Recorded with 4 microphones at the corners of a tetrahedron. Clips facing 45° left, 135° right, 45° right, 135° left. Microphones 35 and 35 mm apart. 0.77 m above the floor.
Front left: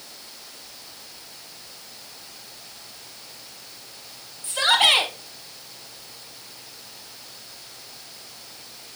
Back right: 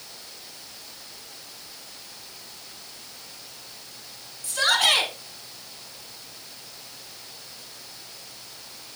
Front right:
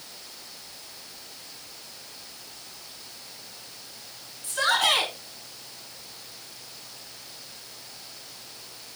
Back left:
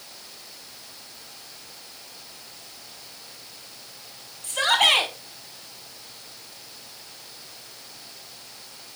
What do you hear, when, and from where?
4.4 s a shout: 105° left, 5 m